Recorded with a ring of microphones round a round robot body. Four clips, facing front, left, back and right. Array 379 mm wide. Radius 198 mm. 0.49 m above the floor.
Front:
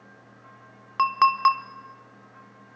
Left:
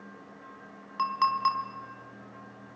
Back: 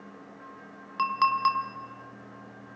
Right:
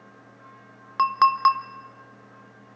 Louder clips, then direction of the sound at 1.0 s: Right 7 dB, front 5 dB; 55° right.